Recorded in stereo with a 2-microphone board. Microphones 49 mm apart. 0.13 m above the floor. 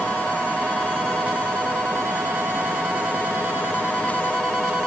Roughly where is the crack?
No crack in this recording.